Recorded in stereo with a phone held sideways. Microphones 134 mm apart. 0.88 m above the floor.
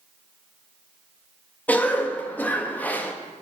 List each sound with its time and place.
1.7 s a cough: 10° left (ahead or behind), 0.8 m